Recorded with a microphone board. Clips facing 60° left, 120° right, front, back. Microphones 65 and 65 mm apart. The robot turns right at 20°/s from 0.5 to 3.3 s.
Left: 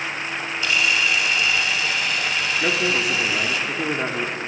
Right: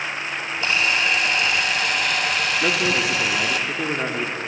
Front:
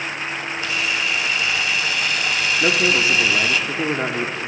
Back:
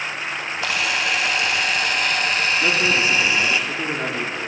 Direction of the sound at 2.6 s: 40° right.